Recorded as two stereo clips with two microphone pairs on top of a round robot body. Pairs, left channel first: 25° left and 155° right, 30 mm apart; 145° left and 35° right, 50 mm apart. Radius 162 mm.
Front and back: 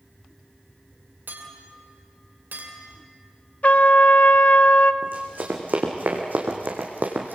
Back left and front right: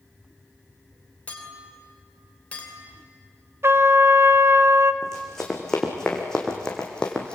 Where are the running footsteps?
135° right, 3.5 m; by 7.3 s 145° right, 2.5 m.